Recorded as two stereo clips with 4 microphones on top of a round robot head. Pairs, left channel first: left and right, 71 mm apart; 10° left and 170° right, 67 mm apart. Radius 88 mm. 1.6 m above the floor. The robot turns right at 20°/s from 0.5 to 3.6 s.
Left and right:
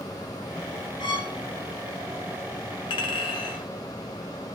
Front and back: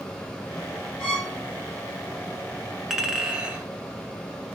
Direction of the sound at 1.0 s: 90° left.